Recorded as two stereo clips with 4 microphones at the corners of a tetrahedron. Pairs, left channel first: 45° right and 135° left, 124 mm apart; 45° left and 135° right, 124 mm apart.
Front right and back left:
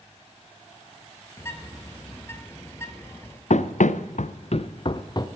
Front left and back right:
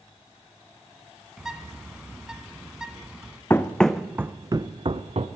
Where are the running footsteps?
25° right, 0.7 m; by 5.3 s 100° right, 0.9 m.